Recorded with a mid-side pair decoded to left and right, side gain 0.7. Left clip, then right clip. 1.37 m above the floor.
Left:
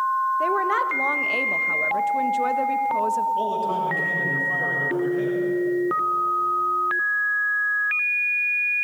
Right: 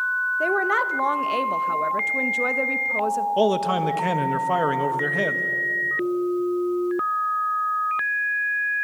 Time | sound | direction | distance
0.4 | a woman speaking | 15° right | 1.1 m
3.4 | a man speaking | 55° right | 1.6 m